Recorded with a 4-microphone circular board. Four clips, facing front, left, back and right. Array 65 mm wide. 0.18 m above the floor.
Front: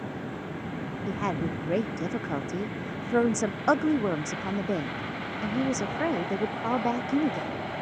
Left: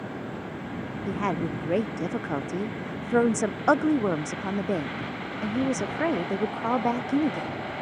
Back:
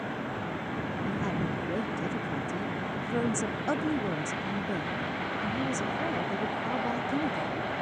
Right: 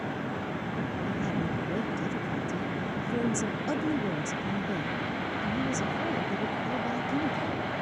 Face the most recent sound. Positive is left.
turn(degrees=60)